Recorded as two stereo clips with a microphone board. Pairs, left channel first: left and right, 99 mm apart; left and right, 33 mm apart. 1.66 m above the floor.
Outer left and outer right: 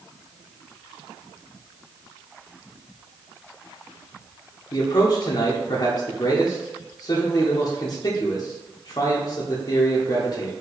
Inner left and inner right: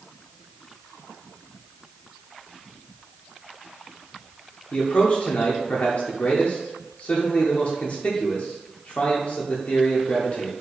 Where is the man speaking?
45° left (ahead or behind), 0.7 m.